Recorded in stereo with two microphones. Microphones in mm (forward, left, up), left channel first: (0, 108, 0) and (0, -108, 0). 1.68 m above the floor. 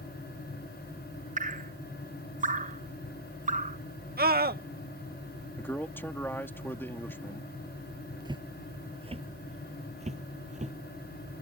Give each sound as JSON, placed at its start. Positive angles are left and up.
{"t": 1.4, "sound": "dripping", "side_deg": -35}
{"t": 4.2, "sound": "a scream", "side_deg": -45}
{"t": 5.6, "sound": "a man speaking", "side_deg": 10}
{"t": 8.2, "sound": "footsteps", "side_deg": -20}